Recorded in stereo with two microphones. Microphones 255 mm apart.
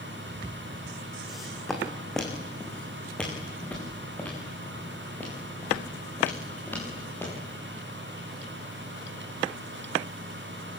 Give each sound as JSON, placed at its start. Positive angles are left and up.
{"t": 1.3, "sound": "footsteps", "side_deg": 0, "distance_m": 4.0}